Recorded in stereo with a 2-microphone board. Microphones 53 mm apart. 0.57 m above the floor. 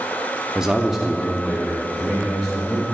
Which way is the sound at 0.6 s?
10° right (ahead or behind).